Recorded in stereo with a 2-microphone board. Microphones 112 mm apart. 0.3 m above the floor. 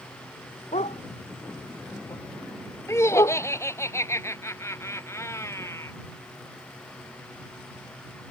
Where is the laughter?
25° left (ahead or behind).